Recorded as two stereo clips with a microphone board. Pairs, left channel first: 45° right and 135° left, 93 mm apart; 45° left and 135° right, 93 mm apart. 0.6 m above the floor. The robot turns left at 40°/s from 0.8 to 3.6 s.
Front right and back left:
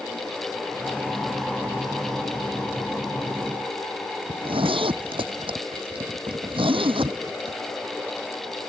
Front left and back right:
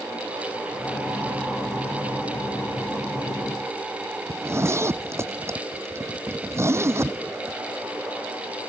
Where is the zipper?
160° left.